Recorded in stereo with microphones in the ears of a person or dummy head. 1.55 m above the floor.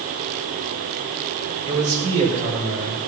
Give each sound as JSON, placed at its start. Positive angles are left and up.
{"t": 1.6, "sound": "a man speaking", "side_deg": -40, "distance_m": 6.0}